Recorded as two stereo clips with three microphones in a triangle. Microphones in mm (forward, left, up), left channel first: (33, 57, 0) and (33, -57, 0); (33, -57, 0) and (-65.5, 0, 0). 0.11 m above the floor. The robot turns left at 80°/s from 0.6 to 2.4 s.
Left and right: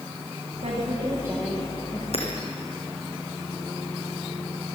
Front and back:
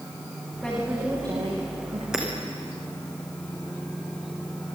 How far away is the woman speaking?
About 10 m.